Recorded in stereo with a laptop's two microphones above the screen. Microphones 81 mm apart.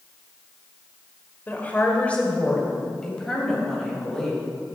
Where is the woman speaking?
25° left (ahead or behind), 4 m; by 4.5 s centre (ahead or behind), 6.5 m.